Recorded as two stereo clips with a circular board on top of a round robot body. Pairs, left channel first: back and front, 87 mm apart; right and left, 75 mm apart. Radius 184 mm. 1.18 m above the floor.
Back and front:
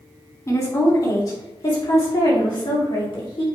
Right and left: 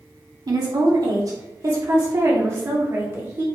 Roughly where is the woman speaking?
Behind left.